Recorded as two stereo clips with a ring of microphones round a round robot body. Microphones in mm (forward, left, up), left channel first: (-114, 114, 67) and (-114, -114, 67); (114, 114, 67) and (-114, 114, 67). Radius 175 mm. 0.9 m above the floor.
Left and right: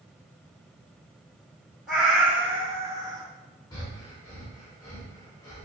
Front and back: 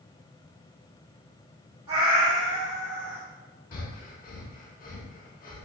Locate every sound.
1.9 s a cat meowing: straight behind, 1.7 m; by 3.2 s 150° right, 1.1 m
3.7 s breathing: 20° left, 0.6 m